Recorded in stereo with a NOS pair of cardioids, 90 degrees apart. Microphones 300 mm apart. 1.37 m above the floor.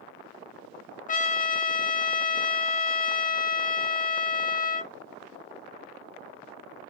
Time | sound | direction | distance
1.1 | a trumpet | 30° left | 0.7 m